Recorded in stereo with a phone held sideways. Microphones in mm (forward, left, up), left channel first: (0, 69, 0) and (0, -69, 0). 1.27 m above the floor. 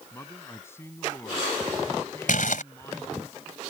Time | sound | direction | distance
0.1 | a man speaking | 20° left (ahead or behind) | ?
2.3 | crumpling | 75° left (ahead or behind) | ?